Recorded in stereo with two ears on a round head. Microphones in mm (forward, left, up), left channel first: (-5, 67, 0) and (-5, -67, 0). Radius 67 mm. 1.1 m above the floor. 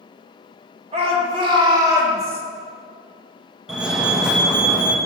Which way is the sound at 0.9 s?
45° right (ahead or behind).